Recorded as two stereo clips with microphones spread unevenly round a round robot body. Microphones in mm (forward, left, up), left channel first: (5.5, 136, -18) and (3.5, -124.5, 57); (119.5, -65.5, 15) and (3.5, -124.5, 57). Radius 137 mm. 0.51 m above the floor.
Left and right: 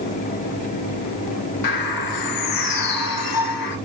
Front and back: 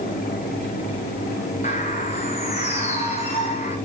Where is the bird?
90° left, 1.8 m.